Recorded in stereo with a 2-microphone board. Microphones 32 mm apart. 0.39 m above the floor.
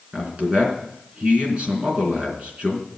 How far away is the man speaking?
About 4 m.